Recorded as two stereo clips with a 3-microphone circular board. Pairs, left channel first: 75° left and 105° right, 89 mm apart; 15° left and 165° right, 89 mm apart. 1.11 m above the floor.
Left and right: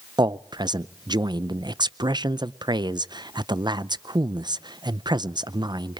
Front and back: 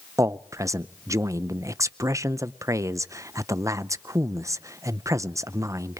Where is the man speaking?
120° right, 0.5 m.